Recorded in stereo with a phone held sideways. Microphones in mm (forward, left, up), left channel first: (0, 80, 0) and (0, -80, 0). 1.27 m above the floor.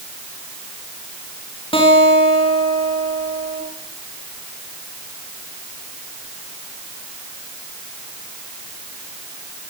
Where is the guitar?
35° left (ahead or behind), 9 m.